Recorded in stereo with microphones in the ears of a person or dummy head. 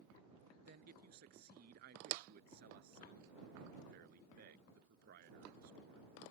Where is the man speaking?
50° right (ahead or behind).